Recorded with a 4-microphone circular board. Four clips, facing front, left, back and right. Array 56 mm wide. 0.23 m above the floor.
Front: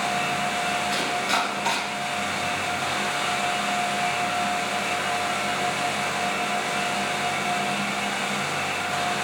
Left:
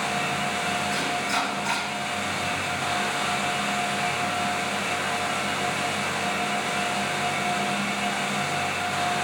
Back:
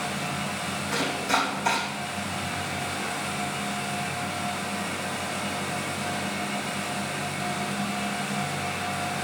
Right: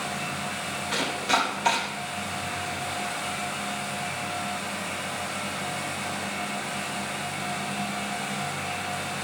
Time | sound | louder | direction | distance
0.9 | chopping | even, front 1 dB | 70° right | 4.5 m